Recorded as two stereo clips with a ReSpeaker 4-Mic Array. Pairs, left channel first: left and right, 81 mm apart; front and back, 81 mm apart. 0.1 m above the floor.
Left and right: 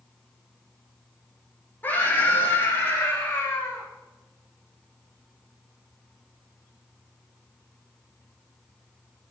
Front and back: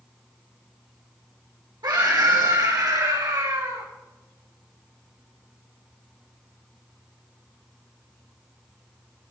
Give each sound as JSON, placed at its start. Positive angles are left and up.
{"t": 1.8, "sound": "a scream", "azimuth_deg": 155, "distance_m": 4.0}